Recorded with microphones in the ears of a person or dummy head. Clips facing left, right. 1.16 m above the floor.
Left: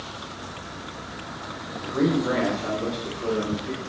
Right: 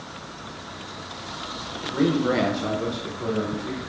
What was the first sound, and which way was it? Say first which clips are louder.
A man speaking: right 1 dB; 10° right (ahead or behind).